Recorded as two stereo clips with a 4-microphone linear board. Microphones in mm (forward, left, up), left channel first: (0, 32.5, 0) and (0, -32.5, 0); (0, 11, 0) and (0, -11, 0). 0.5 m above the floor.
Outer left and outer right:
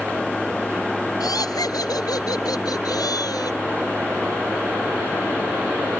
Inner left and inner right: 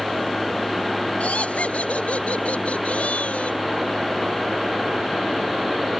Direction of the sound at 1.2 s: 75° left (ahead or behind).